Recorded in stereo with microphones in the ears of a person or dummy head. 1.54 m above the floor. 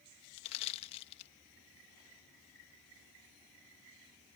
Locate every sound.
0.4 s crushing: 35° left (ahead or behind)